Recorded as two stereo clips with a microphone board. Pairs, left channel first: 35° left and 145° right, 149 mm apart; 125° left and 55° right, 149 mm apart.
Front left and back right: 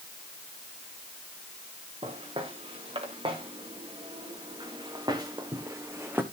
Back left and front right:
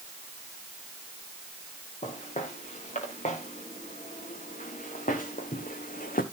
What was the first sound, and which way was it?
Footsteps, 165° left.